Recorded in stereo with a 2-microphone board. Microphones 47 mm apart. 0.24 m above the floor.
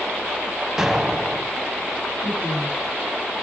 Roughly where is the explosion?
Centre.